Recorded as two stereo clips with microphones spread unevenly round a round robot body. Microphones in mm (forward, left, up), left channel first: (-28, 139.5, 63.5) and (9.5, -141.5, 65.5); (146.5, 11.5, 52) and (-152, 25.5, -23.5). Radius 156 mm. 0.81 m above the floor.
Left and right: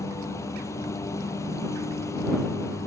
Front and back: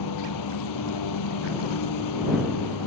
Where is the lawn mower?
15° left.